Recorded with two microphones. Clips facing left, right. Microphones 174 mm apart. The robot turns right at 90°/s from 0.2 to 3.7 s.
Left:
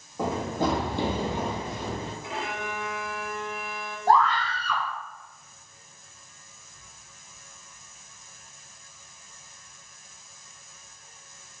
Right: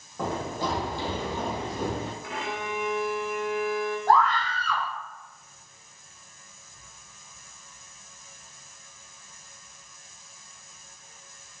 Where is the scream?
30° left (ahead or behind), 1.5 m.